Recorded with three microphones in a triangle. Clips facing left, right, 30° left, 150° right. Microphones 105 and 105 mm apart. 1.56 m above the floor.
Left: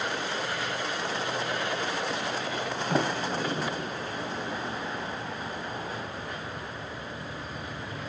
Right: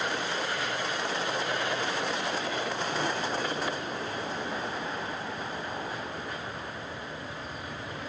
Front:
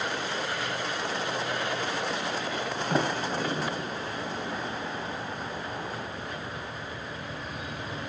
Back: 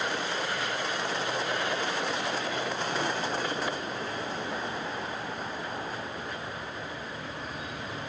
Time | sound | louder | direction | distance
2.9 | a sliding door | left 6 dB, front 6 dB | 65° left | 3.5 m